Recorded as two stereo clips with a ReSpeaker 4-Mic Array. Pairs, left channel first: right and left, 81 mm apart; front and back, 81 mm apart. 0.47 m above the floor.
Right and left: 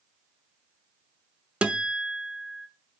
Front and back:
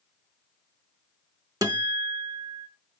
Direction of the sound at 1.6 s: 165° left.